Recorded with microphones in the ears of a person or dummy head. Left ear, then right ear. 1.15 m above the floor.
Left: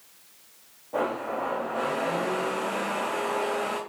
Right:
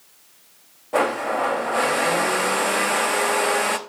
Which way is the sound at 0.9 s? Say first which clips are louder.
Right 7 dB; 45° right (ahead or behind).